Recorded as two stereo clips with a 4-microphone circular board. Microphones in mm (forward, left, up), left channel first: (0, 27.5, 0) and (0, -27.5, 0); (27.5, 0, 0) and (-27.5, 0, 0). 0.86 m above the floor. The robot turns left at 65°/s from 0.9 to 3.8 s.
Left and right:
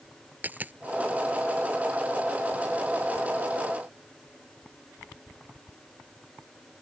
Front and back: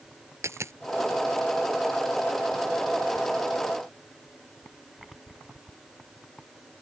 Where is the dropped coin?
150° right.